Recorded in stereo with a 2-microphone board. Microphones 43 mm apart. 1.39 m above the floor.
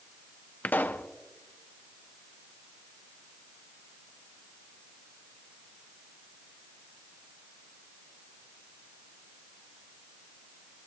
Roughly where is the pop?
Left.